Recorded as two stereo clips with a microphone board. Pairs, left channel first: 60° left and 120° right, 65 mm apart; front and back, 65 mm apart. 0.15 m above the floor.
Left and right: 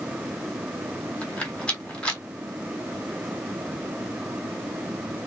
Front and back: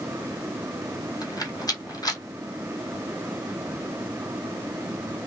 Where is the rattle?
10° right, 1.1 m.